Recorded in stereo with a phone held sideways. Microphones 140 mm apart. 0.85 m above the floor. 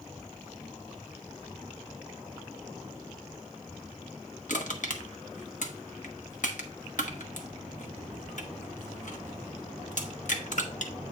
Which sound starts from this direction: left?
Crushing, at 4.5 s.